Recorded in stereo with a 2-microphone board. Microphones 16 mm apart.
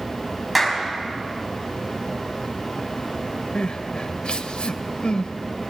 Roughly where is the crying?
Left.